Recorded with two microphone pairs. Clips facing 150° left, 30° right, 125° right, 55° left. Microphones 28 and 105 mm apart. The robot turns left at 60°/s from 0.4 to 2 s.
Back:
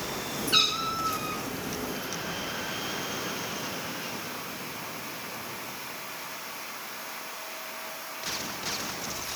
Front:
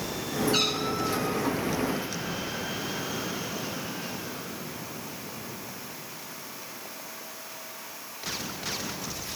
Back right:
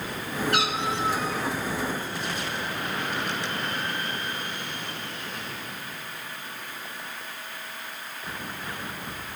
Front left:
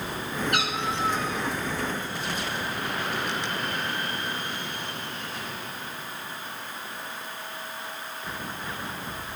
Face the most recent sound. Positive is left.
turn(degrees=85)